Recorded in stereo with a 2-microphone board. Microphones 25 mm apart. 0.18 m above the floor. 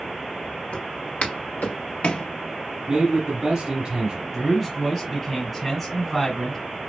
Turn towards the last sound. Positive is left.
turn(degrees=0)  # may be behind; listen again after turning